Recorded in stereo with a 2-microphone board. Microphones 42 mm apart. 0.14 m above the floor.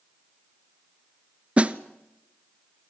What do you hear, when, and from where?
1.6 s a snare drum: 30° right (ahead or behind), 0.8 m